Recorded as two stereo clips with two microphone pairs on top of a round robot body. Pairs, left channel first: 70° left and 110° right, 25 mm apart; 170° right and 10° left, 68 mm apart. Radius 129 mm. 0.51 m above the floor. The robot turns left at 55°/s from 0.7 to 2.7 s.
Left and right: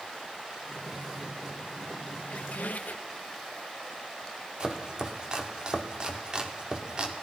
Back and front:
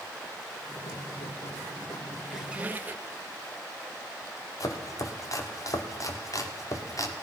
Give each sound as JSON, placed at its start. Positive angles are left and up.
{"t": 2.2, "sound": "a squeak", "azimuth_deg": 100, "distance_m": 0.9}
{"t": 4.6, "sound": "chopping", "azimuth_deg": -165, "distance_m": 2.0}